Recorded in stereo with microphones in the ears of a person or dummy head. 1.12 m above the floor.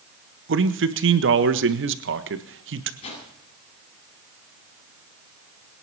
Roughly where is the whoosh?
Left.